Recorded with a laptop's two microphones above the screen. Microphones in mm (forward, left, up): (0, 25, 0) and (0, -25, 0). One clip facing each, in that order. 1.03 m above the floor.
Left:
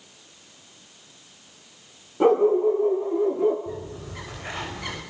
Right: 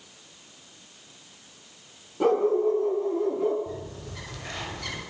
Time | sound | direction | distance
2.2 | a dog barking | 15° left (ahead or behind) | 6.5 m
3.7 | a bird | 20° left (ahead or behind) | 6 m